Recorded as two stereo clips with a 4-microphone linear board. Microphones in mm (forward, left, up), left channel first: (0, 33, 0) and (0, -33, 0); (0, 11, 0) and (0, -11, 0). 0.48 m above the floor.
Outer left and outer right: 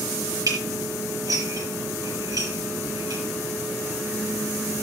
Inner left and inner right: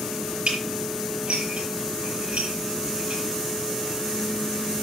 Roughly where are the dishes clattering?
Right.